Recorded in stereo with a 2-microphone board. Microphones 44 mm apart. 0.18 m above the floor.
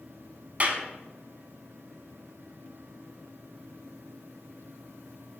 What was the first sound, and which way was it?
A clap, 35° right (ahead or behind).